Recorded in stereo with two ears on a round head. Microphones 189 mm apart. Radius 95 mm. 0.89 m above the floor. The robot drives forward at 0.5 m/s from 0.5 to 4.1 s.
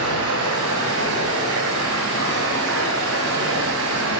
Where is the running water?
75° right (ahead or behind), 4.5 m; by 4.2 s 80° right, 4.5 m.